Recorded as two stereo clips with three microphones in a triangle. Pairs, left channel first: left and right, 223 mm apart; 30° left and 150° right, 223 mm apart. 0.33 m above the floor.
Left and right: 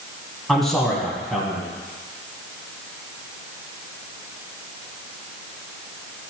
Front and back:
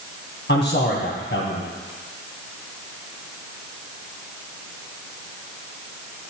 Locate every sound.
0.5 s a man speaking: straight ahead, 2.5 m